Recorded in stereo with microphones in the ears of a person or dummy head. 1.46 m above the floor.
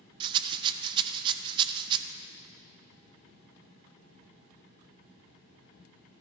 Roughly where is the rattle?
Right.